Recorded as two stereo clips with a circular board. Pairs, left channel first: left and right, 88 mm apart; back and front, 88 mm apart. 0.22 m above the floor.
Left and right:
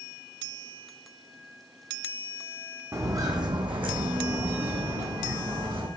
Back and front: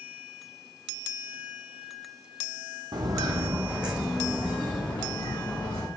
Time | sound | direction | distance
2.9 | footsteps | 35° right | 0.7 m